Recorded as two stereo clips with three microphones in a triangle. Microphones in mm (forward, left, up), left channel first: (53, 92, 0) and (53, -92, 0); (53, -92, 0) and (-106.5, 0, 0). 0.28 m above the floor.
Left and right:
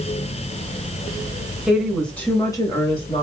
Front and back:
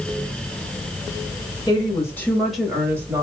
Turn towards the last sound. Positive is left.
turn(degrees=95)